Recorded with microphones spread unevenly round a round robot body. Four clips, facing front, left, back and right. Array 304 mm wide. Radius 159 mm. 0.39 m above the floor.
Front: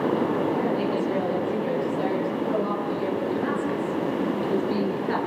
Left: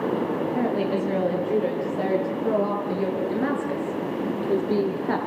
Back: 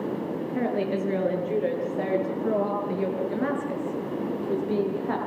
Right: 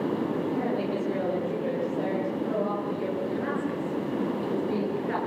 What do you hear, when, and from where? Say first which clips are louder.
0.6 s a woman speaking: left 4 dB, front 2 dB; 130° left, 8.5 m; by 5.2 s 105° left, 7 m